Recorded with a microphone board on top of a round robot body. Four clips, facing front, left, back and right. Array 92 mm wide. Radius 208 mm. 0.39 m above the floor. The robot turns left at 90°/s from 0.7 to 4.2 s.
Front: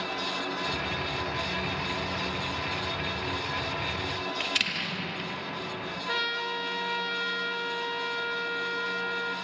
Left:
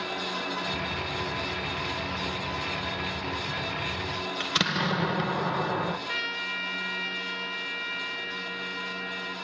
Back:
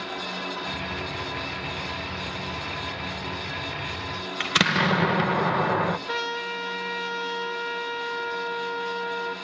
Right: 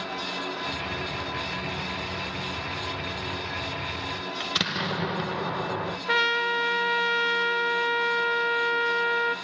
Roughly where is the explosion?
Behind.